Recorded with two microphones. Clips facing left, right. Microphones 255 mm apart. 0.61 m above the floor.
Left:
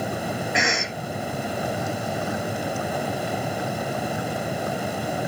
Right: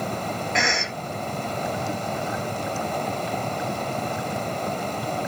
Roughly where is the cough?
Centre.